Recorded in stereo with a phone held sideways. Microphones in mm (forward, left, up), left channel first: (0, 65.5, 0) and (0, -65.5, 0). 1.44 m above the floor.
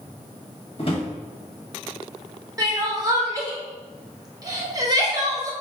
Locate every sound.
0.8 s a drawer: 45° left (ahead or behind), 1.2 m
2.6 s crying: 30° right (ahead or behind), 0.8 m